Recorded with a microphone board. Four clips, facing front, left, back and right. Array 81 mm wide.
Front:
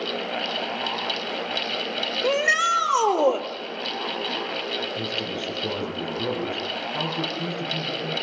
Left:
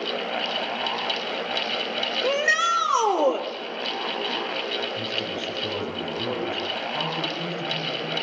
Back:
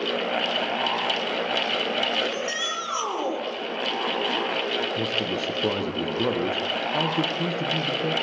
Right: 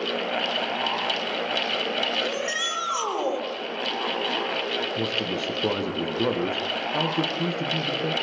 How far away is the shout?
About 5.5 m.